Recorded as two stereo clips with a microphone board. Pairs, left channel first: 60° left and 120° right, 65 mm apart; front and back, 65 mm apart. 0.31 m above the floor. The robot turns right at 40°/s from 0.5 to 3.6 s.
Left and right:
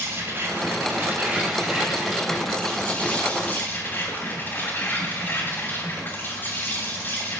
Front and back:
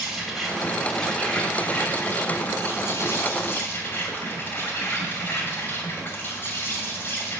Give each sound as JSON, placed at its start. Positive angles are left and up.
{"t": 0.0, "sound": "an insect", "azimuth_deg": -95, "distance_m": 2.5}